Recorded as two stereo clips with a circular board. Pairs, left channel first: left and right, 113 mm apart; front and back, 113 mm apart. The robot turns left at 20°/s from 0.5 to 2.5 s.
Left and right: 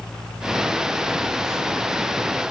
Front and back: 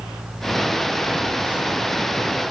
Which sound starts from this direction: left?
A phone buzzing, at 1.1 s.